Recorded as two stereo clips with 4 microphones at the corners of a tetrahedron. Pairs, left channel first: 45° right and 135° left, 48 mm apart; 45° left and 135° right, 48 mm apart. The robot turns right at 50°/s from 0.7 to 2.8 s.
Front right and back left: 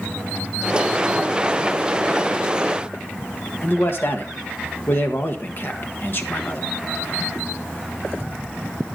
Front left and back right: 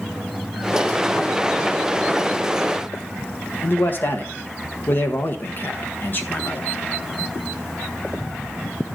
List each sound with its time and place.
3.6 s a man speaking: 5° right, 1.1 m